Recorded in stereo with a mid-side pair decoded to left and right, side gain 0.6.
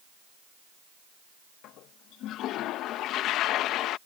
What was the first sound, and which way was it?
A toilet flushing, 65° left.